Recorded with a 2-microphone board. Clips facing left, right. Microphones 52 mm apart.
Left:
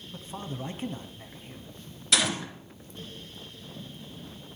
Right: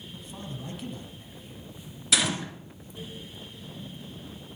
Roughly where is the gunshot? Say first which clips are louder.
Even; centre.